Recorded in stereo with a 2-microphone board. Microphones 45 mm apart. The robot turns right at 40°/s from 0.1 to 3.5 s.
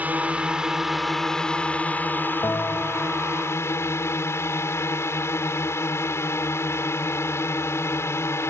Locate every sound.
0.0 s a drone: 40° right; by 8.5 s 100° left
2.4 s a bell: 70° left (ahead or behind); by 3.2 s 80° left